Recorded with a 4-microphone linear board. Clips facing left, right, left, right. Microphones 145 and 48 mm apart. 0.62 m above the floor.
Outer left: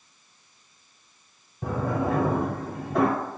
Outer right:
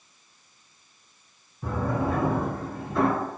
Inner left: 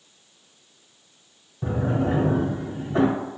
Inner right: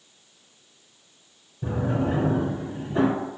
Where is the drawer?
85° left, 1.3 m.